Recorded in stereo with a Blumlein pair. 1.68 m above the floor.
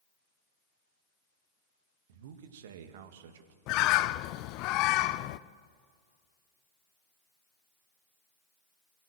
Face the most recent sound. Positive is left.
turn(degrees=40)